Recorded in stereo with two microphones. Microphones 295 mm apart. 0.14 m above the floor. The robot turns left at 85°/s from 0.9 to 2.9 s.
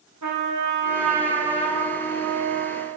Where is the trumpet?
100° right, 4 m; by 2.9 s 95° left, 4 m.